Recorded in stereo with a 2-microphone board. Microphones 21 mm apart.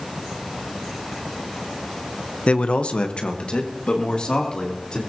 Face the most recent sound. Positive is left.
turn(degrees=40)  # may be behind; listen again after turning